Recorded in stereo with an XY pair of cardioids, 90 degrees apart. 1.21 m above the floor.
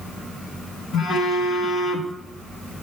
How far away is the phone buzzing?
About 1.4 m.